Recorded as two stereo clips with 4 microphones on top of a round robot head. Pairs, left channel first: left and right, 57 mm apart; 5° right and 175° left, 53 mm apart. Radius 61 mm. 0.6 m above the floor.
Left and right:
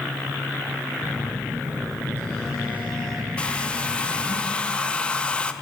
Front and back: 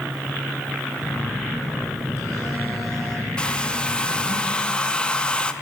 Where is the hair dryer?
45° left, 0.6 m.